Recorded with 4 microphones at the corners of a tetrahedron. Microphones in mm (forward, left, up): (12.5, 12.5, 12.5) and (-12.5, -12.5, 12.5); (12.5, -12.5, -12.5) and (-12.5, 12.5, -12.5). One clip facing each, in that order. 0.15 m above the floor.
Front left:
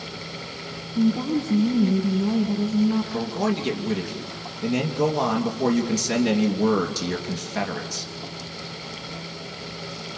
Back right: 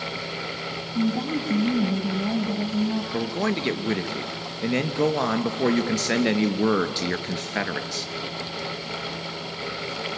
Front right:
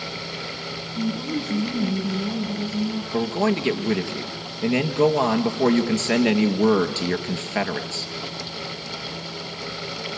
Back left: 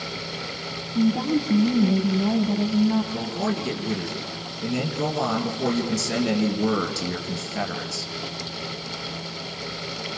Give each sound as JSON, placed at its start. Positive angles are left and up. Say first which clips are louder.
{"t": 0.9, "sound": "a woman speaking", "louder": "front left 3 dB, back left 5 dB", "azimuth_deg": 160, "distance_m": 5.5}
{"t": 3.1, "sound": "a man speaking", "louder": "even, front right 4 dB", "azimuth_deg": -80, "distance_m": 2.5}